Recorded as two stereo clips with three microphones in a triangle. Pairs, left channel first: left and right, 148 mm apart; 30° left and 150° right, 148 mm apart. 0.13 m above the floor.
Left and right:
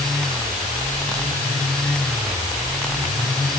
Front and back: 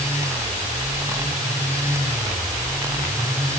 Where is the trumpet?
No trumpet in this recording.